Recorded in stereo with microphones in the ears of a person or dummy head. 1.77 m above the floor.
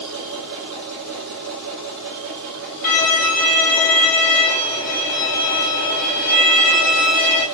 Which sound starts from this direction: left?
A violin, at 2.8 s.